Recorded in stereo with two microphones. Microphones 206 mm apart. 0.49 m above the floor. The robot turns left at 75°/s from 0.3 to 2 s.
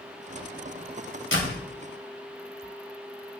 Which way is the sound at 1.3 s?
70° left (ahead or behind).